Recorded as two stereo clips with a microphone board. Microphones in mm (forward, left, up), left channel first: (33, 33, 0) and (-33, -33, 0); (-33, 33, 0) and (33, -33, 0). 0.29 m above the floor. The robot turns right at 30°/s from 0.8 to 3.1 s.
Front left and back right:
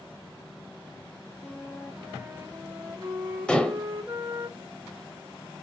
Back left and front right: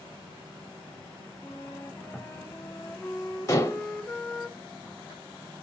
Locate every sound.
1.4 s a flute: 145° left, 1.2 m; by 4.5 s 165° right, 1.2 m
3.5 s dishes clattering: 120° left, 0.7 m